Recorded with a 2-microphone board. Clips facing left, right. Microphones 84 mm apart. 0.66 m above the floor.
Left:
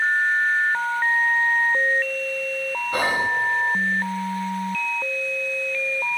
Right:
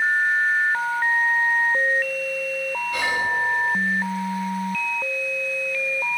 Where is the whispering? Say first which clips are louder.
Left 3 dB; 40° left (ahead or behind), 1.0 m.